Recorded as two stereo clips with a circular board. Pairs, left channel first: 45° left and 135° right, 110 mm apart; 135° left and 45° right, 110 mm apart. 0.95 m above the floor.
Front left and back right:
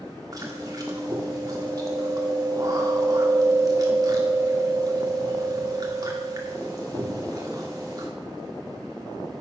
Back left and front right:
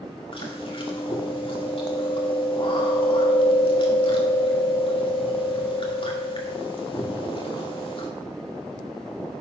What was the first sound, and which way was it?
Chewing, 170° left.